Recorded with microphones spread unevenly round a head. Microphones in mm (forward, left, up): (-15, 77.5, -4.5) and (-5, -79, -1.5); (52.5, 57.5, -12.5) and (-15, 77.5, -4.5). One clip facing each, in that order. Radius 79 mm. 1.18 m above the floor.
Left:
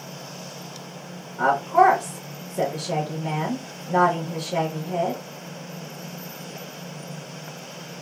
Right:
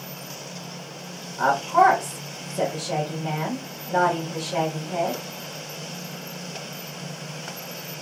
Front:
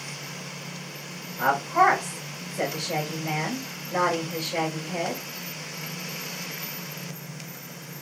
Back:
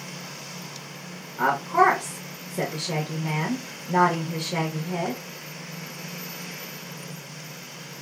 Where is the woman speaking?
160° left, 0.9 m.